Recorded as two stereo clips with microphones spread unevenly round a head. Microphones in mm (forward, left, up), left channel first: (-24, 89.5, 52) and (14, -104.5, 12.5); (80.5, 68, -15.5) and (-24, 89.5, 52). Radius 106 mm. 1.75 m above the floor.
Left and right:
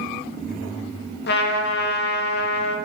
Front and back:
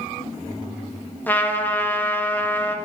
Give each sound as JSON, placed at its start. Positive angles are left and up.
{"t": 1.3, "sound": "a trumpet", "azimuth_deg": 65, "distance_m": 1.7}